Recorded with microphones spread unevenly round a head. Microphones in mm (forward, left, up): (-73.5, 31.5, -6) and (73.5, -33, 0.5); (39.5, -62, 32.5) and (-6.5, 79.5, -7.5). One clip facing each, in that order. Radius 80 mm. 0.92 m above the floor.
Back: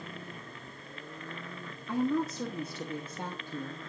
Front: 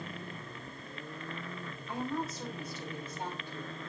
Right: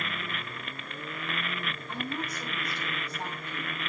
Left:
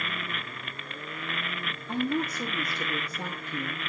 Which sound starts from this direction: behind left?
A woman speaking, at 1.9 s.